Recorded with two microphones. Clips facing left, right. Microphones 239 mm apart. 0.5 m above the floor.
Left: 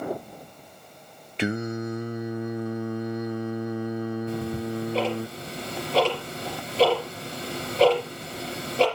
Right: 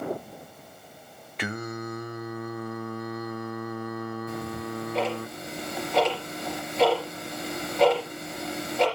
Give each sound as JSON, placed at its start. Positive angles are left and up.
{"t": 1.4, "sound": "singing", "side_deg": 25, "distance_m": 0.9}
{"t": 4.3, "sound": "ticking", "side_deg": 30, "distance_m": 4.5}